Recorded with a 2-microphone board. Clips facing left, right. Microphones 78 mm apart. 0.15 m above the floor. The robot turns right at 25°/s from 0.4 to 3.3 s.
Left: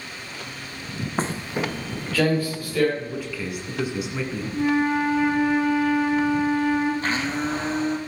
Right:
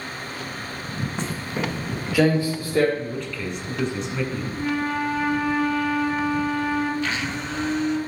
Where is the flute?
25° left (ahead or behind), 1.4 m.